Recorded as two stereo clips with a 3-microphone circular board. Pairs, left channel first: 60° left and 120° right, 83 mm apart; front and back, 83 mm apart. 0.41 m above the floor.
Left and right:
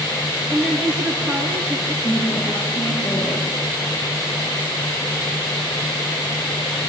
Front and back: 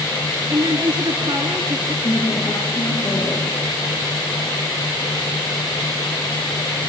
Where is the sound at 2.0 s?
60° left, 9.5 m.